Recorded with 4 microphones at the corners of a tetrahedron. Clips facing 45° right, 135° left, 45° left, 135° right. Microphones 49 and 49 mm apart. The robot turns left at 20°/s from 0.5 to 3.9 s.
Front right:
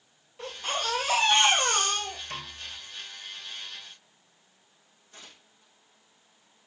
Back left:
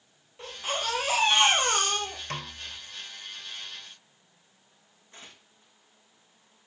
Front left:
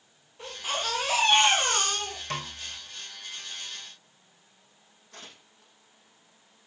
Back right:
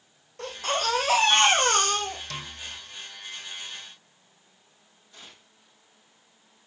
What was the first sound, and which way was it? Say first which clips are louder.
A baby crying: even, back right 4 dB; 135° right.